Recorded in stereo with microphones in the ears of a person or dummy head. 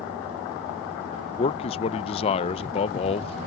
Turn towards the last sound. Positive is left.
turn(degrees=30)  # may be behind; listen again after turning